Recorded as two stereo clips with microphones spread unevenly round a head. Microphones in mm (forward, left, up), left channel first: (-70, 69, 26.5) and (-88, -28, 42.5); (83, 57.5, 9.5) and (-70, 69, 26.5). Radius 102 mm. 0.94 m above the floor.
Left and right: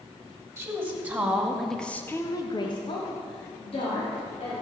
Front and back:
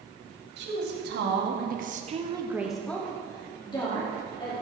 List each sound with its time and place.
0.6 s a woman speaking: 170° right, 3 m; by 4.5 s 45° left, 3.5 m